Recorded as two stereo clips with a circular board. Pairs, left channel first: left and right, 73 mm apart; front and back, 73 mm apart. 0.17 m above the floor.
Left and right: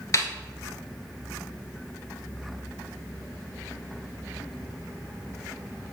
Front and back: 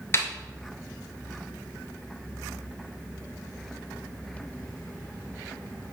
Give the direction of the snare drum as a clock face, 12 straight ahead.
10 o'clock.